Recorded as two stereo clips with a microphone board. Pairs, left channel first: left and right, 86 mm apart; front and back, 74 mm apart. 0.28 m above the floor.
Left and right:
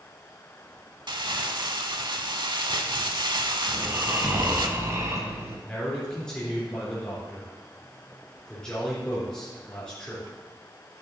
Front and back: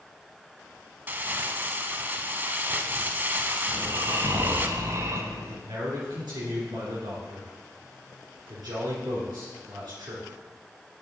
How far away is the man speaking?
About 3 m.